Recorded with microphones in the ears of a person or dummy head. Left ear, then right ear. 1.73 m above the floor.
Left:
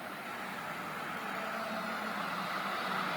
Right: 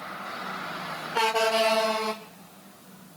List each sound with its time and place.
Only background noise.